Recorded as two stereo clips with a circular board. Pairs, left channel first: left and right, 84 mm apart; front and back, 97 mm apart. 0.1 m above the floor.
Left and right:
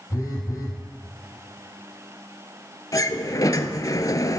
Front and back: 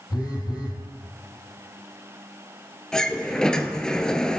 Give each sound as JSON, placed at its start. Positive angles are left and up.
{"t": 0.1, "sound": "a phone buzzing", "azimuth_deg": 40, "distance_m": 2.5}
{"t": 2.9, "sound": "a sliding door", "azimuth_deg": 80, "distance_m": 0.6}